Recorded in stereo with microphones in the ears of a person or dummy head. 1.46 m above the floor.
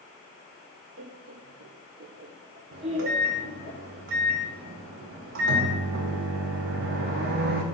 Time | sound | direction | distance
1.0 | laughter | 60° right (ahead or behind) | 0.6 m
2.7 | a microwave | 55° right (ahead or behind) | 0.7 m